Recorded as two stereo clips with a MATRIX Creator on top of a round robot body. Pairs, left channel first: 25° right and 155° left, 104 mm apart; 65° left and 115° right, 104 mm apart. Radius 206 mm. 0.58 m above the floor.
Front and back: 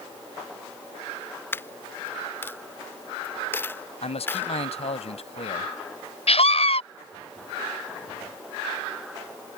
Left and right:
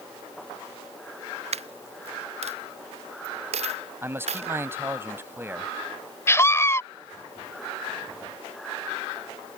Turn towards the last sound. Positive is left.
turn(degrees=0)